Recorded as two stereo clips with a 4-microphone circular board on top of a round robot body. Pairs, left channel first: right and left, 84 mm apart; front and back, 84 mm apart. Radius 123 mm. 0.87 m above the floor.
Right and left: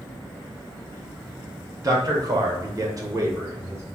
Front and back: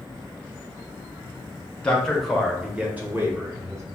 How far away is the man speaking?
About 1.2 m.